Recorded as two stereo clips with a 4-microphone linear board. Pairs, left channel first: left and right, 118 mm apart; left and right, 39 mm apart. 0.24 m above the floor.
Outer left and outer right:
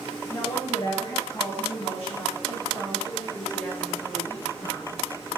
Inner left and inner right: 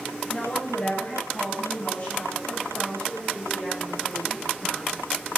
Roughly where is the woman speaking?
Left.